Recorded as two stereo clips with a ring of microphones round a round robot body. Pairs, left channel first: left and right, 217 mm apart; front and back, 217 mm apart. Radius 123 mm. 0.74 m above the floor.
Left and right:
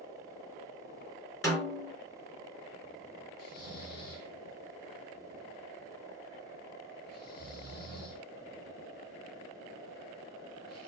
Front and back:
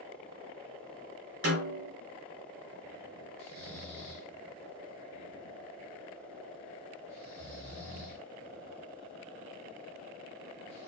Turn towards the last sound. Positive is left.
turn(degrees=130)